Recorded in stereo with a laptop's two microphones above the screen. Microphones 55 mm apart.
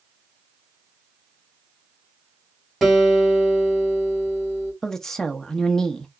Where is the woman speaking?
10° left (ahead or behind), 0.8 m.